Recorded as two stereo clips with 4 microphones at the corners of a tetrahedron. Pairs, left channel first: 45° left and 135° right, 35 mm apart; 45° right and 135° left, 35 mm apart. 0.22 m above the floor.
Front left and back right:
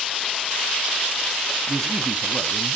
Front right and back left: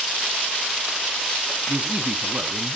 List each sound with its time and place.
1.7 s a man speaking: 130° left, 1.2 m